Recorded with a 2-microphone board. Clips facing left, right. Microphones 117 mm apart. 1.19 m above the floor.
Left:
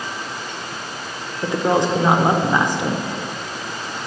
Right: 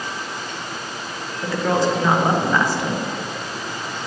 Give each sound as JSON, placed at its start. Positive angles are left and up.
{"t": 1.4, "sound": "a woman speaking", "side_deg": 20, "distance_m": 0.5}